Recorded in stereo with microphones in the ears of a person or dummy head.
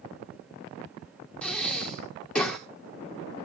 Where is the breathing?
5° left (ahead or behind), 1.9 m.